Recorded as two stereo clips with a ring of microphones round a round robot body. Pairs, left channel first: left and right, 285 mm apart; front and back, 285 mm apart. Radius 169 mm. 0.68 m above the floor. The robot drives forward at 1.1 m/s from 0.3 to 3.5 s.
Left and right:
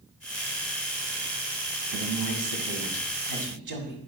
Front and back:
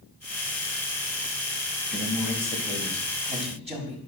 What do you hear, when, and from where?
1.9 s a man speaking: 90° right, 5 m; by 4.0 s 110° right, 5 m